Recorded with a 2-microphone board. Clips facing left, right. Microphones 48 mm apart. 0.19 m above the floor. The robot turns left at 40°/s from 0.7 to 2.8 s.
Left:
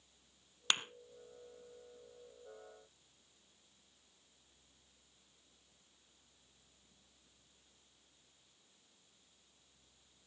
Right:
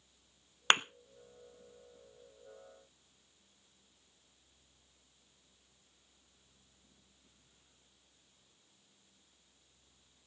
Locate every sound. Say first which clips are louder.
0.7 s a thud: right 8 dB; 40° right (ahead or behind), 0.5 m; by 0.8 s 45° right (ahead or behind), 0.5 m